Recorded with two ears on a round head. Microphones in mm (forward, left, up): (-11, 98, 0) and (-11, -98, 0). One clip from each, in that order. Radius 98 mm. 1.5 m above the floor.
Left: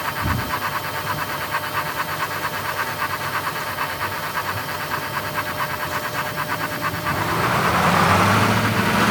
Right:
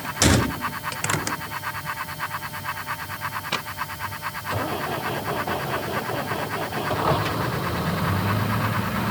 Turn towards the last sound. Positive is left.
No sound to turn to.